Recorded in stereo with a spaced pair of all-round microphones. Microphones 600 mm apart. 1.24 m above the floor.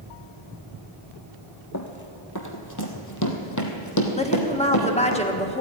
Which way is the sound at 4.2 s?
10° left (ahead or behind).